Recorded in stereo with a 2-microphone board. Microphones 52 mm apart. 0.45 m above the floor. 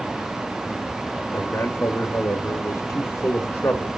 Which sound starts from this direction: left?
A man speaking, at 1.3 s.